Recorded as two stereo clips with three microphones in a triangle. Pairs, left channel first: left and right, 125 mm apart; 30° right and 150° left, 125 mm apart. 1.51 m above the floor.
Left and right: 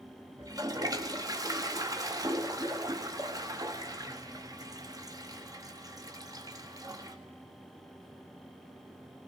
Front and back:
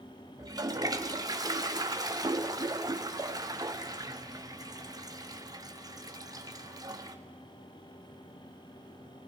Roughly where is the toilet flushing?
Behind right.